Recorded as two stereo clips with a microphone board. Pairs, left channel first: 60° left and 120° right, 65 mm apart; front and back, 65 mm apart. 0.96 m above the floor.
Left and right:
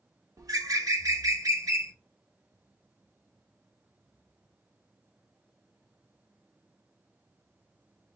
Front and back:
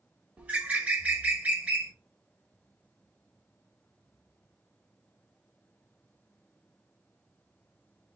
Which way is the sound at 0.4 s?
115° right.